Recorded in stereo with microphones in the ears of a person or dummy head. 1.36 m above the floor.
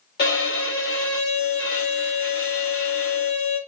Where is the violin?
55° left (ahead or behind), 1.6 m.